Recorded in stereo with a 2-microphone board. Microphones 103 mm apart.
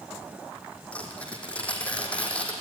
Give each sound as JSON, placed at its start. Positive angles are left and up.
{"t": 0.9, "sound": "tearing paper", "side_deg": 10, "distance_m": 3.0}